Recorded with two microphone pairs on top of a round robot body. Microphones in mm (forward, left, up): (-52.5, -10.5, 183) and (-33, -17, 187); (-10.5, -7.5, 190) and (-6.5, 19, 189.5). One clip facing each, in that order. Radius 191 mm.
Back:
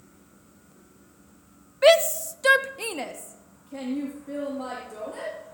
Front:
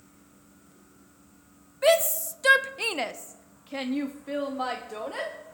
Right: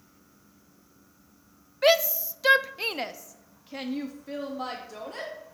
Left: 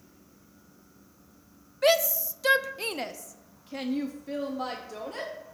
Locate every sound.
1.8 s a shout: 165° right, 1.2 m; by 5.3 s 10° right, 2.5 m